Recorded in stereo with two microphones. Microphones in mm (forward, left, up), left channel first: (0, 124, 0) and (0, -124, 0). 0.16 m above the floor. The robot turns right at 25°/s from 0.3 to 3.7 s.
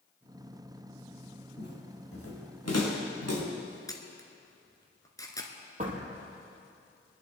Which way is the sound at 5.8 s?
30° right (ahead or behind).